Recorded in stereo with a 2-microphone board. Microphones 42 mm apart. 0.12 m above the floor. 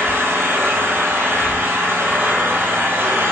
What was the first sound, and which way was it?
An engine running, 70° right (ahead or behind).